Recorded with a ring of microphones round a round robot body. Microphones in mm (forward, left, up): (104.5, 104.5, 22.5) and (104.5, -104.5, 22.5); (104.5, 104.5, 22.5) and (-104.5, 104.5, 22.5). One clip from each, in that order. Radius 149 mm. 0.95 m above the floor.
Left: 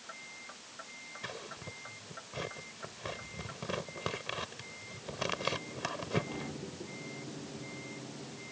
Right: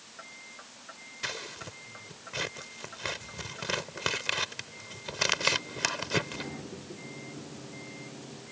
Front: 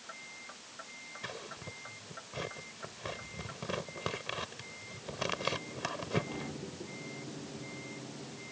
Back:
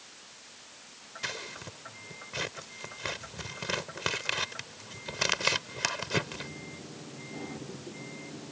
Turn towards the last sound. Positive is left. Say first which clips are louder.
# right 9 dB, back 8 dB
turn(degrees=-130)